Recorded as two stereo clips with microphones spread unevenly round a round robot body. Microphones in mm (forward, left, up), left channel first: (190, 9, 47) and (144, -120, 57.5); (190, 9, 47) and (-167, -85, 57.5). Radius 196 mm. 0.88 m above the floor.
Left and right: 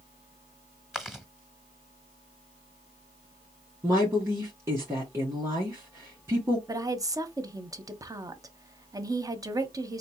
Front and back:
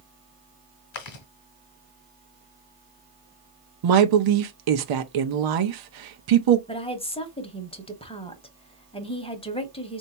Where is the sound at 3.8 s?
175° left, 0.8 m.